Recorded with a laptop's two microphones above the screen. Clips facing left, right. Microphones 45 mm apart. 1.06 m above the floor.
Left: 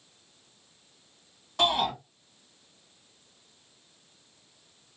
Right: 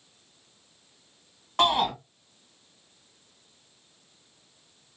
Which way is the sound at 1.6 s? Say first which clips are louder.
Right 3 dB; 50° right (ahead or behind).